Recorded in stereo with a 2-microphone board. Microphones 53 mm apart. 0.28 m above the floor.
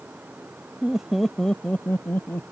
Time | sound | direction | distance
0.8 | laughter | 20° right (ahead or behind) | ?